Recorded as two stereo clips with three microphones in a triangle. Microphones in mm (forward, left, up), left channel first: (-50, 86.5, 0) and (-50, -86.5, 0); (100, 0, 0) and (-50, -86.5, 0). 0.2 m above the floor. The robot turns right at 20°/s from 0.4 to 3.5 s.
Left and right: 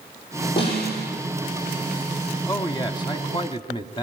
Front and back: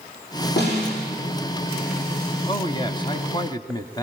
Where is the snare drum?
30° left, 9 m; by 1.1 s 40° left, 9 m.